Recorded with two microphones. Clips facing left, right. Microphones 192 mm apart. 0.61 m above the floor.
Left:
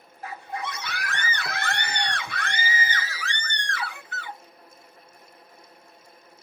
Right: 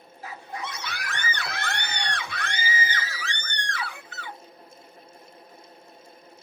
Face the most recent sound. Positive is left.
turn(degrees=55)  # may be behind; listen again after turning